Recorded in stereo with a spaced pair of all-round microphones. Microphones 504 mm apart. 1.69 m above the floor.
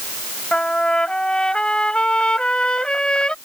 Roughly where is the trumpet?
Centre.